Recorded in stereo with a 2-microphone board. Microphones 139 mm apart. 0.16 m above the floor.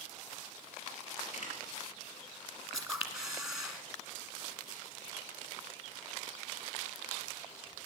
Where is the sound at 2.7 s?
5° right (ahead or behind), 1.8 m.